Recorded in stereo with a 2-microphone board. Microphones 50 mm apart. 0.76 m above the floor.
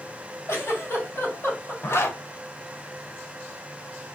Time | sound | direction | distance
0.5 | a giggle | 55° left (ahead or behind) | 1.6 m
1.8 | a zipper | 55° left (ahead or behind) | 0.7 m